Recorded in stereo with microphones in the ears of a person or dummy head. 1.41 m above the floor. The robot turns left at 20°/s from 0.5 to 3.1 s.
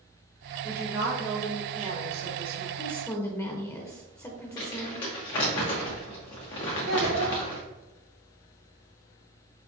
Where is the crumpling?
25° left (ahead or behind), 0.8 m.